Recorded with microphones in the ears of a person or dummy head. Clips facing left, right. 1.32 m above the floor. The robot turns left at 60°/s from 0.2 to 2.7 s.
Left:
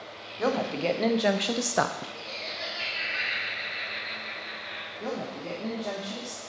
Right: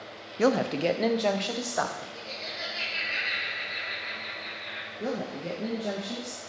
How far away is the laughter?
About 1.5 m.